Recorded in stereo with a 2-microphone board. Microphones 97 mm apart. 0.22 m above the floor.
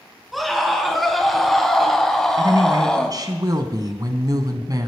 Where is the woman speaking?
40° right (ahead or behind), 1.5 m.